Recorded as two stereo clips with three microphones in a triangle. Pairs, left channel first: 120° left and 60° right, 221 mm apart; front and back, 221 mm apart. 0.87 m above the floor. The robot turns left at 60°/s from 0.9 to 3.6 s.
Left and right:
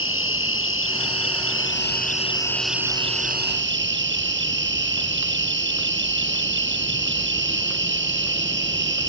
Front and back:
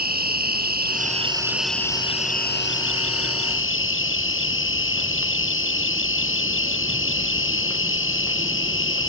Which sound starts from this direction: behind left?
An insect, at 0.0 s.